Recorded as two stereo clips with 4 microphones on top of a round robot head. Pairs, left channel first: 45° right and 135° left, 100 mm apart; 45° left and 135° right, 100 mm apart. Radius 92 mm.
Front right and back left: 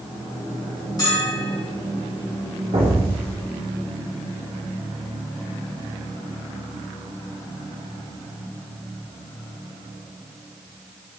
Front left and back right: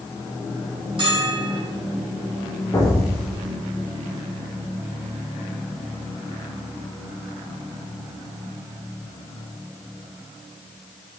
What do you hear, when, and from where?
1.0 s a bell: 95° right, 3.5 m
2.7 s an explosion: 105° left, 2.5 m